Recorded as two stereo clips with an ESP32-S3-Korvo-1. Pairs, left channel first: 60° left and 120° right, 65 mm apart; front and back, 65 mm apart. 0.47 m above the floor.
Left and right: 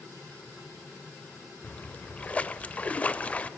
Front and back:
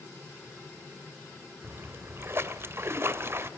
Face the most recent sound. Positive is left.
turn(degrees=130)